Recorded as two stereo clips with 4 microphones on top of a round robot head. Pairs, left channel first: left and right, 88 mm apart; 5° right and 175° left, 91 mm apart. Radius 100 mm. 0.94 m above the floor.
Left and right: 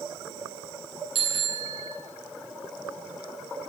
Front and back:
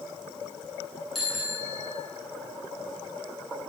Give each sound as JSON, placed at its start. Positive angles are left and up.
{"t": 1.1, "sound": "a bicycle bell", "azimuth_deg": -95, "distance_m": 9.5}